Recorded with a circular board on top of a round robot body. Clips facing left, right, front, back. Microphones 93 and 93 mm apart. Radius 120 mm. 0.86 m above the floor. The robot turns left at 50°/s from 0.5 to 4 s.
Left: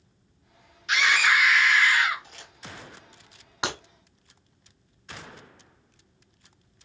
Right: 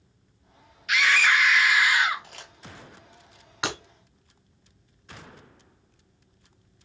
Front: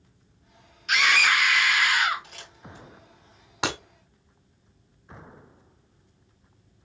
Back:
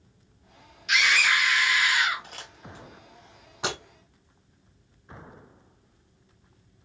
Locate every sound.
0.9 s a scream: 35° left, 0.9 m; by 2.2 s 35° right, 0.9 m
2.2 s crumpling: 125° right, 2 m; by 2.9 s 155° right, 2 m
3.6 s breaking glass: 20° left, 1.0 m; by 3.8 s 10° left, 1.0 m